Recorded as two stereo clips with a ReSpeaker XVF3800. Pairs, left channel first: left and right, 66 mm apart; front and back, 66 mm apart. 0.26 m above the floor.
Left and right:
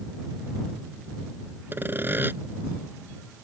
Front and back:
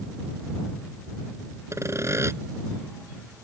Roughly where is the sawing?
Behind right.